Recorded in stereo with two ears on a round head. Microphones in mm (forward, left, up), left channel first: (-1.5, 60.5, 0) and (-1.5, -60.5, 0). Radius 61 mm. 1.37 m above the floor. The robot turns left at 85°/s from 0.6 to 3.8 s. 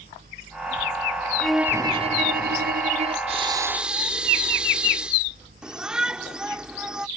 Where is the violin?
10° left; by 3.2 s 140° right.